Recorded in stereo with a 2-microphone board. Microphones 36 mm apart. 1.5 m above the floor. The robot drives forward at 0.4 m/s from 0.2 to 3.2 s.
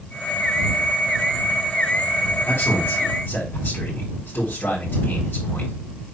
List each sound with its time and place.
2.5 s a man speaking: 80° left, 4 m